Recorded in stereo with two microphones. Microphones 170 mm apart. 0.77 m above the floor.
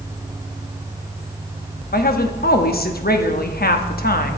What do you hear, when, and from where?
1.9 s a woman speaking: 60° left (ahead or behind), 0.9 m